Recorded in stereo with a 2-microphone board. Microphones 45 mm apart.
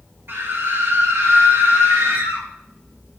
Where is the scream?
55° right (ahead or behind), 3.5 m; by 2.5 s 75° right (ahead or behind), 3.5 m.